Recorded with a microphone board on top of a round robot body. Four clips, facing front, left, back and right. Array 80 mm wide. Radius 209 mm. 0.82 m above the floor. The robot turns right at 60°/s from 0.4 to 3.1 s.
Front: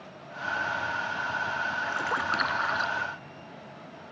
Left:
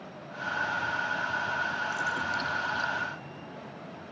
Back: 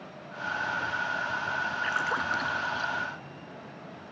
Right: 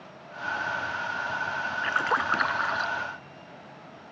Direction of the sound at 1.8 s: 105° right.